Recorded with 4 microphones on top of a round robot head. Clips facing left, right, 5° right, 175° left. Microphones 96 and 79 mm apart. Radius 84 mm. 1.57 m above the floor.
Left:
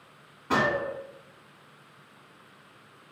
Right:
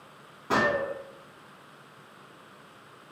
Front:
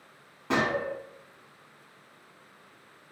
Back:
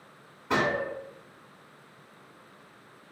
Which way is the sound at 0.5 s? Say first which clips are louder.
Even, even; 20° right.